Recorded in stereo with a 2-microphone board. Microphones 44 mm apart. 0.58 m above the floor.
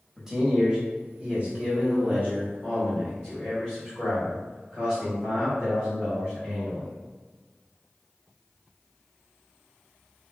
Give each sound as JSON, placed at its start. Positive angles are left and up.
{"t": 0.2, "sound": "a man speaking", "side_deg": -10, "distance_m": 1.1}